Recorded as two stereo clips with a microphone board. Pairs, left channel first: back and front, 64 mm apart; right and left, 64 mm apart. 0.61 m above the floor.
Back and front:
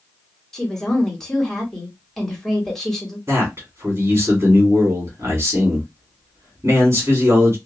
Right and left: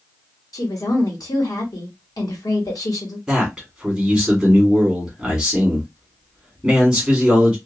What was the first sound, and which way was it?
A woman speaking, 95° right.